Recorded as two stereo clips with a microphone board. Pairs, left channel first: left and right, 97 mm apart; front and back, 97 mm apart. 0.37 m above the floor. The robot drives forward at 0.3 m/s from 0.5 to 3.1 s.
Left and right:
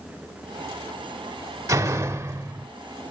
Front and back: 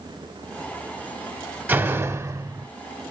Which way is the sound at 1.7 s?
125° right.